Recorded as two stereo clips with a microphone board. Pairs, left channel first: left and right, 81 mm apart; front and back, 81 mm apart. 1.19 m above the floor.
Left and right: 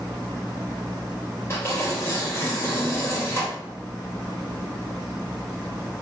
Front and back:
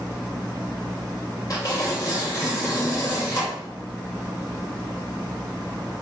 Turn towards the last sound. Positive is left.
turn(degrees=35)